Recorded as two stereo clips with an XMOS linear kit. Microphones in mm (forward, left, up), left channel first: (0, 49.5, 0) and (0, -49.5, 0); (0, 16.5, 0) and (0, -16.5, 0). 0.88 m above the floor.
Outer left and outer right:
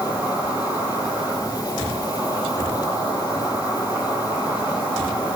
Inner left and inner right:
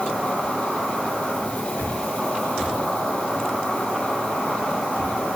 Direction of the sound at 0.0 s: 20° right (ahead or behind).